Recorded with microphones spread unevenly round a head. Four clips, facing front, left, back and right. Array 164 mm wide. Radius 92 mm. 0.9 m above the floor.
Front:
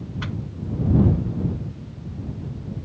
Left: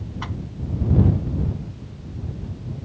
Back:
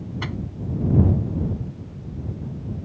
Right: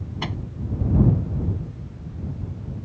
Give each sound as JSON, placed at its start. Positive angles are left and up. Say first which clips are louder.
{"t": 0.2, "sound": "a microwave", "louder": "right 3 dB, back 1 dB", "azimuth_deg": -125}